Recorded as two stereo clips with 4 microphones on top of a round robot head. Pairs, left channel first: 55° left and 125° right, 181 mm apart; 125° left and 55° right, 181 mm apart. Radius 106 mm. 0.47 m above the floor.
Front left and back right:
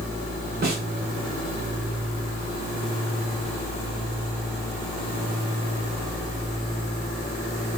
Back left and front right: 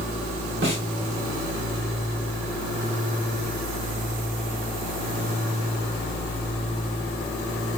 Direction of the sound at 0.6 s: 85° right.